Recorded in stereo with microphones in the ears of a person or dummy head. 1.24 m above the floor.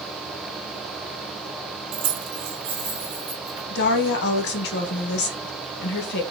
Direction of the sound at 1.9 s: 45° right (ahead or behind).